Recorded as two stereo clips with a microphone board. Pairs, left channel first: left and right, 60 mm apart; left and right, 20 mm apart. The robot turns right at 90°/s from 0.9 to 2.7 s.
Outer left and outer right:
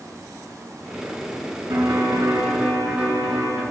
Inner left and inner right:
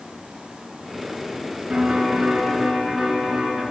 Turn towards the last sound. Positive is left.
turn(degrees=-15)